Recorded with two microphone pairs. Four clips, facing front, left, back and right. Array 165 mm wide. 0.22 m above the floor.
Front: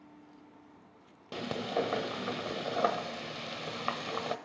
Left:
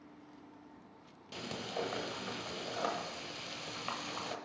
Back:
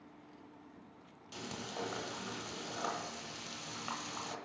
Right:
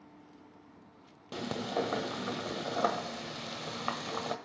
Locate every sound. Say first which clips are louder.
1.3 s frying: right 7 dB, front 11 dB; 30° right, 0.9 m